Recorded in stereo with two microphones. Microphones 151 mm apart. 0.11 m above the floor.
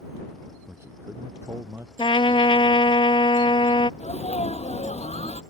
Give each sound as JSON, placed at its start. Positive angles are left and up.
{"t": 0.7, "sound": "a man speaking", "side_deg": -15}
{"t": 2.0, "sound": "a trumpet", "side_deg": 35}
{"t": 4.0, "sound": "a sneeze", "side_deg": 45}